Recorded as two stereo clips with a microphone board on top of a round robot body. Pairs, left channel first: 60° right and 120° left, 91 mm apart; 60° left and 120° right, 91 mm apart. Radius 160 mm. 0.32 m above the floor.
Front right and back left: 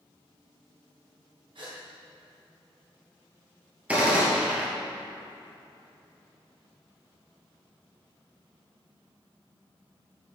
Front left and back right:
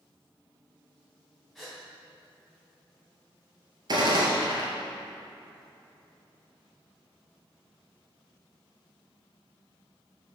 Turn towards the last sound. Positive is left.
turn(degrees=-165)